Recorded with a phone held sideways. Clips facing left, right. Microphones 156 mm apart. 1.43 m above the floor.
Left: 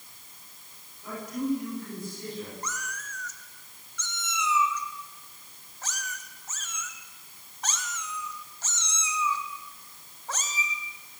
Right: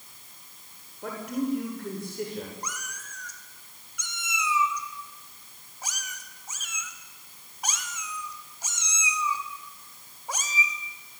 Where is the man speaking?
70° right (ahead or behind), 6.5 m.